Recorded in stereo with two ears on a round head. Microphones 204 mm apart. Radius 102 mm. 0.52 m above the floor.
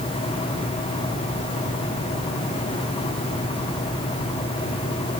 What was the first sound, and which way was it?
Only background noise.